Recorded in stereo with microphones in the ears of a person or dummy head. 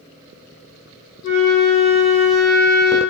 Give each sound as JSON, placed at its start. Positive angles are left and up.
{"t": 1.2, "sound": "a flute", "side_deg": 65, "distance_m": 1.0}